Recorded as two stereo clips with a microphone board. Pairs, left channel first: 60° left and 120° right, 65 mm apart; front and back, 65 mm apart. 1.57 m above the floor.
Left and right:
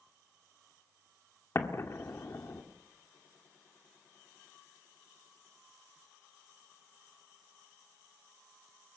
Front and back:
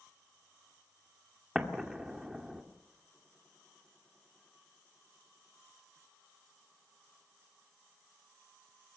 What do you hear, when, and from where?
1.6 s an explosion: 100° left, 2 m